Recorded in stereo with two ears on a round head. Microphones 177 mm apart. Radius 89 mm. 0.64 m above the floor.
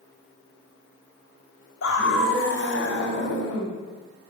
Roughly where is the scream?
Left.